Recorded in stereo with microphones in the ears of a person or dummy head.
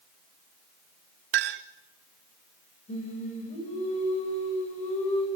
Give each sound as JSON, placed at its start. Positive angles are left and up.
{"t": 1.3, "sound": "a clink", "side_deg": -65, "distance_m": 1.0}
{"t": 2.9, "sound": "singing", "side_deg": 30, "distance_m": 8.5}